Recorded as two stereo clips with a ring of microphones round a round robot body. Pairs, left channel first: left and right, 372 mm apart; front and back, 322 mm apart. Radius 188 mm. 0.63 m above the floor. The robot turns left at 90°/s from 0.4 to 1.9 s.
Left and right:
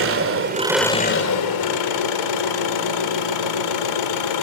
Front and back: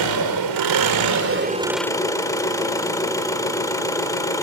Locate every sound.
0.0 s an engine running: 145° right, 2.5 m; by 4.4 s 80° left, 2.5 m